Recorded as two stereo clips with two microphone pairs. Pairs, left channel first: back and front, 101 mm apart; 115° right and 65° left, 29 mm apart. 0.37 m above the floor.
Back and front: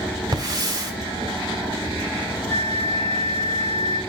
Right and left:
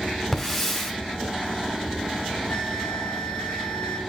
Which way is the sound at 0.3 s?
35° right.